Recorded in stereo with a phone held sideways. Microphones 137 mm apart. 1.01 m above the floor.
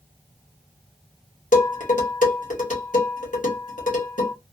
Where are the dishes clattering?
70° left (ahead or behind), 1.5 m.